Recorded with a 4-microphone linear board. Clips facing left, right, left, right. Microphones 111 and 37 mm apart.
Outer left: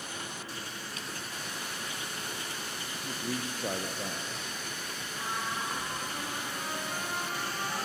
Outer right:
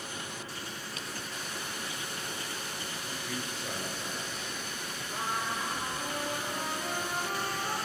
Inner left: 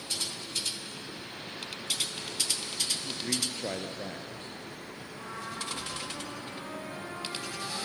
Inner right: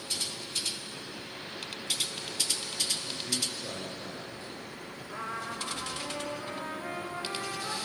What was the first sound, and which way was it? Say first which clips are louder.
A man speaking: outer left 5 dB, inner left 1 dB; 50° left (ahead or behind).